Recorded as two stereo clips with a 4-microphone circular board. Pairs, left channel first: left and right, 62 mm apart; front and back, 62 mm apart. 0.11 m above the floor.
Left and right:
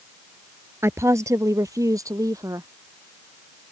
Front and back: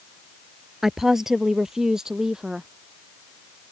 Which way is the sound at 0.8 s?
95° right.